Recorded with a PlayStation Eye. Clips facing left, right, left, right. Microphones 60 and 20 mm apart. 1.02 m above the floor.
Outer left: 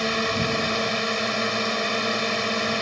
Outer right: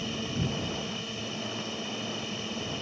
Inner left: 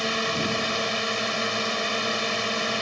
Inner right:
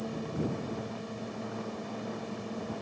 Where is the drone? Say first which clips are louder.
Outer left 9 dB, inner left 10 dB; 75° left (ahead or behind).